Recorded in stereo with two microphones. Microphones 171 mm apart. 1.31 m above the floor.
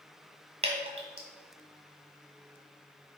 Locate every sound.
0.6 s dripping: 40° right (ahead or behind), 1.8 m